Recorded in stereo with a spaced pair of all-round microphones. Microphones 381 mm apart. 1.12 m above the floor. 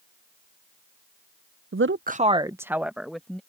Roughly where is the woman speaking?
Right.